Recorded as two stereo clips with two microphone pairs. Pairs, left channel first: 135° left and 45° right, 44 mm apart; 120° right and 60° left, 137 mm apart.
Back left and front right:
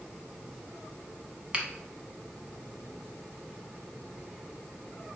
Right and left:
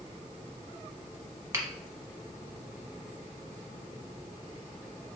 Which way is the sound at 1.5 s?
5° left.